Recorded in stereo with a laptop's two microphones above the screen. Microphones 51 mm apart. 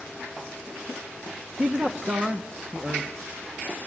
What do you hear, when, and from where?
1.6 s a man speaking: 25° right (ahead or behind), 1.2 m